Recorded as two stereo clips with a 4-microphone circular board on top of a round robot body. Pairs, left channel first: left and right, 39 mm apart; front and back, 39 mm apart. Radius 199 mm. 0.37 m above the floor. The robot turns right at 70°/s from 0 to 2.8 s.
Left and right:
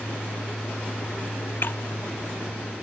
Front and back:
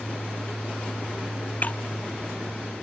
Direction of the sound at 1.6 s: 50° left.